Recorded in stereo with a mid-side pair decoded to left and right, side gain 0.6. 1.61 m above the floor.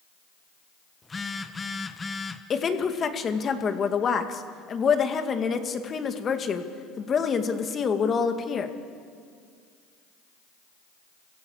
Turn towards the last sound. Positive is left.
turn(degrees=35)